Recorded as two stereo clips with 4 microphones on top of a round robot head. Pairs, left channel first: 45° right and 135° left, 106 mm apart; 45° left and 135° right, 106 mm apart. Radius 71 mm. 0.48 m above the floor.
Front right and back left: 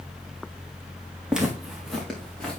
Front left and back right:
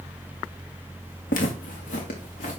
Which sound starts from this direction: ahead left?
Footsteps, at 1.3 s.